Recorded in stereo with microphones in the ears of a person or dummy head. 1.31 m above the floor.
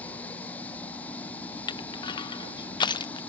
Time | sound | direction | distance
0.0 | running water | 5° left (ahead or behind) | ?
1.7 | crushing | 25° left (ahead or behind) | ?